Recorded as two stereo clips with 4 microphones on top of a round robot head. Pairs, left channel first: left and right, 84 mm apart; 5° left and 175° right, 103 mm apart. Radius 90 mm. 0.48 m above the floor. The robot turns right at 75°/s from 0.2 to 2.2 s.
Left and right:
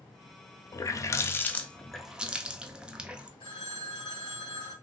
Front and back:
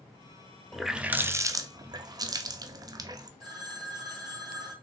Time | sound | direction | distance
0.7 | a running tap | 90° left | 0.6 m
3.4 | a phone ringing | 130° left | 2.5 m